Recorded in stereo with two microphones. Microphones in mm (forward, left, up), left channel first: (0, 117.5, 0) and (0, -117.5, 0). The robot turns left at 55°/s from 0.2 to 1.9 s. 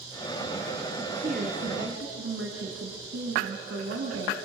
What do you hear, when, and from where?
1.0 s a woman speaking: 20° right, 3 m; by 4.3 s 70° right, 3 m